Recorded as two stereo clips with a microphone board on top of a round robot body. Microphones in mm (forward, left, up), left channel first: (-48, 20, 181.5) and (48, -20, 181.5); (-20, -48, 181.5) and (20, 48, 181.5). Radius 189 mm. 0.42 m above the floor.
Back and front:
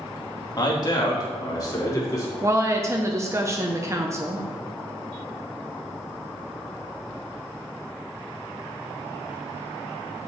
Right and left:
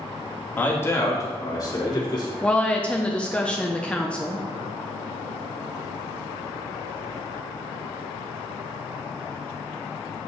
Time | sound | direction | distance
0.6 | a man speaking | straight behind | 1.5 m
2.4 | a woman speaking | 45° right | 0.9 m